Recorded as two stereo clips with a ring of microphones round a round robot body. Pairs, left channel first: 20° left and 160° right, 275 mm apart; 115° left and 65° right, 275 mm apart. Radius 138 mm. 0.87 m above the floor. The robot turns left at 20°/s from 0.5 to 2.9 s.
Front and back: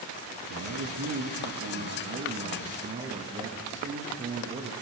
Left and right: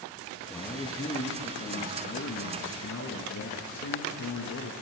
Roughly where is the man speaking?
Behind.